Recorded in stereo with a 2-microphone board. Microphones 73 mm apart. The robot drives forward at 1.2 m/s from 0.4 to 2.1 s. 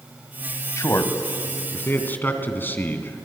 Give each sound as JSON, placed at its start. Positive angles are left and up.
{"t": 0.8, "sound": "a man speaking", "side_deg": 40, "distance_m": 1.7}